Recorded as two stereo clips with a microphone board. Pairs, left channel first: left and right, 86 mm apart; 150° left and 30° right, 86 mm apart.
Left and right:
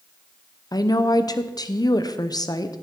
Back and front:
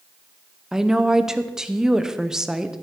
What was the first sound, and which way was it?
A woman speaking, 55° left.